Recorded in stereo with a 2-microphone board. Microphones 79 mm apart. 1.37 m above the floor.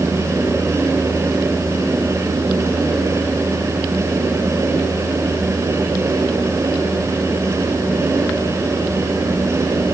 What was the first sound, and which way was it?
Only background noise.